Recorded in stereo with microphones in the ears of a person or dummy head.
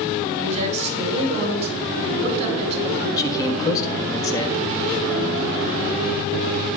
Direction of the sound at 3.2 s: 30° left (ahead or behind).